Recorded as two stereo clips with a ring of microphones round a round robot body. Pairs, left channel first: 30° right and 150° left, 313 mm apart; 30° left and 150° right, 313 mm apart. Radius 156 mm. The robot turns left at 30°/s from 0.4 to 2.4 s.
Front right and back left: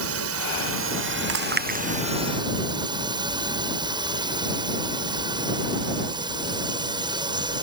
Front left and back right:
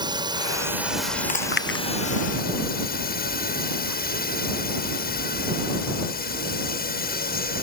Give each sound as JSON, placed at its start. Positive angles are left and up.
{"t": 0.0, "sound": "a drone", "azimuth_deg": 140}
{"t": 1.3, "sound": "chewing", "azimuth_deg": 100}